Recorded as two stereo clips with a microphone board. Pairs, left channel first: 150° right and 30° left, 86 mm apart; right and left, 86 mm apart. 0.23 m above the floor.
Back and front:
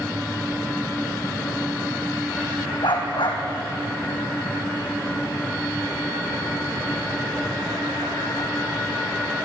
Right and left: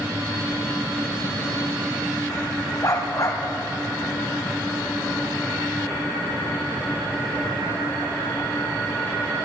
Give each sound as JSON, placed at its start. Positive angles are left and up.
{"t": 2.8, "sound": "a dog barking", "azimuth_deg": -135, "distance_m": 4.5}